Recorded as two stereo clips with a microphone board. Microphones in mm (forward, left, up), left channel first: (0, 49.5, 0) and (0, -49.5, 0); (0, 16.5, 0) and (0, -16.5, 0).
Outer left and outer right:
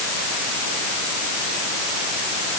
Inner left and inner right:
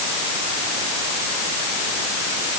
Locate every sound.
Only background noise.